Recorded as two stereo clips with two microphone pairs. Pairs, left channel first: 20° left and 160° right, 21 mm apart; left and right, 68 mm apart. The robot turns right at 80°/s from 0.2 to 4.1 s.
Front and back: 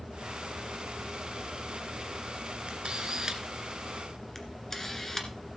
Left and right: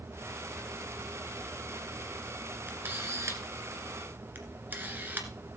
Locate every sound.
2.7 s a camera shutter: 155° right, 1.8 m; by 5.3 s 40° right, 1.8 m